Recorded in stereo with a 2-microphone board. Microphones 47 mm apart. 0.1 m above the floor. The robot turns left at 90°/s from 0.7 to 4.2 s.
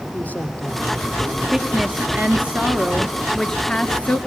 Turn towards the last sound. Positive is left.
turn(degrees=105)